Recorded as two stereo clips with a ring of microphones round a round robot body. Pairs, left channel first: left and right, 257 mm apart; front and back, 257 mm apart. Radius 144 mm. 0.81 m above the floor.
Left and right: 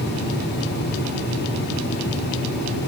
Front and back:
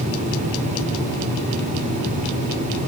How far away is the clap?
No clap in this recording.